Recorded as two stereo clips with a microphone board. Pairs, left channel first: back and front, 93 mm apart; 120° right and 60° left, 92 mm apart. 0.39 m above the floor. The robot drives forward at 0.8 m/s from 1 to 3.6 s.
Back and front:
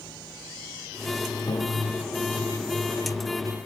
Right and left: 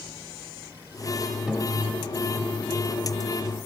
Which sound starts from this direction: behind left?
A piano, at 1.5 s.